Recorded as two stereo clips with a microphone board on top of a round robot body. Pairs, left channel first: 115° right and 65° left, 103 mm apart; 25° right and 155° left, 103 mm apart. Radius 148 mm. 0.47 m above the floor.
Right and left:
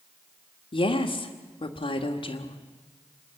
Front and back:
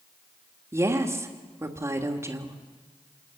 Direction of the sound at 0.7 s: 140° right.